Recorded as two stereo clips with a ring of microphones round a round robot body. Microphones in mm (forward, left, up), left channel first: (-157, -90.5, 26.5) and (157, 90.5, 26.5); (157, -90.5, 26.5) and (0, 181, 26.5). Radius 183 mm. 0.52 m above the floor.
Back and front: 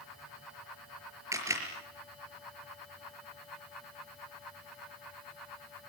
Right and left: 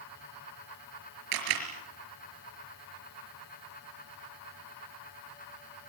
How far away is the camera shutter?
About 5 m.